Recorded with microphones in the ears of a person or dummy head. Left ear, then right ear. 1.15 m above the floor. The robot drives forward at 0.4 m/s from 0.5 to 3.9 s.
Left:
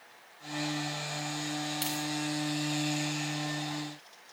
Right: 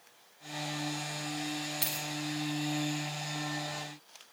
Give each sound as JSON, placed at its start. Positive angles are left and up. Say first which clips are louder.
{"t": 1.8, "sound": "a dropped coin", "louder": "left 2 dB", "side_deg": 0, "distance_m": 0.6}